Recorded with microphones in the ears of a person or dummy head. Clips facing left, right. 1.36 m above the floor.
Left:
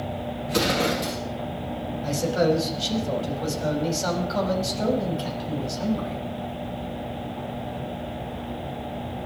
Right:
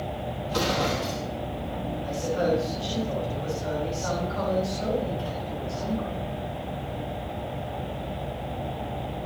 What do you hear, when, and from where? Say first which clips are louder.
0.5 s an explosion: left 3 dB; 35° left (ahead or behind), 2.5 m
2.0 s a man speaking: left 4 dB; 80° left, 7.5 m